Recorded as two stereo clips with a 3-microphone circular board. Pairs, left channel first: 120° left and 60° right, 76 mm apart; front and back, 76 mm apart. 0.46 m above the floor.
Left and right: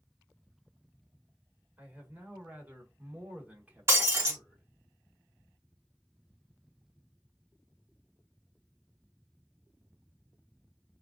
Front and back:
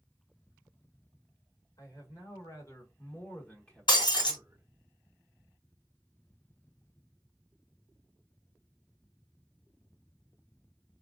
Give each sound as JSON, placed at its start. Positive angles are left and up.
{"t": 1.8, "sound": "a man speaking", "azimuth_deg": 5, "distance_m": 1.6}
{"t": 3.9, "sound": "breaking glass", "azimuth_deg": -5, "distance_m": 1.6}